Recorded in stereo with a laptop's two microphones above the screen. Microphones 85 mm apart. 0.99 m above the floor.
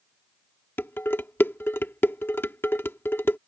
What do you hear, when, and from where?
0.8 s dishes clattering: 25° left (ahead or behind)